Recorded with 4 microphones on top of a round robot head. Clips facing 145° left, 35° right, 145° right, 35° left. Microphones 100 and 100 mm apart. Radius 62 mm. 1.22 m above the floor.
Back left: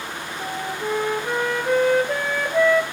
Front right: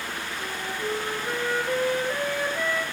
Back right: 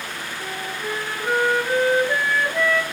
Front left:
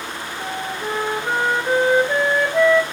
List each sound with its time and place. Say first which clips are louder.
0.4 s a flute: back left 6 dB, front left 4 dB; 105° left, 1.6 m